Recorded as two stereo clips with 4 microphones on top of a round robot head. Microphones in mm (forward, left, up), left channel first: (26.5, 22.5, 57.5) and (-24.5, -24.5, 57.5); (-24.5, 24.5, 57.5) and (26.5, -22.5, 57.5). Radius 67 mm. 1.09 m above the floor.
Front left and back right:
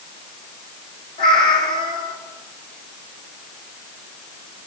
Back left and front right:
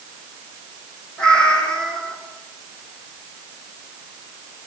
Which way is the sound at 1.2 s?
60° left.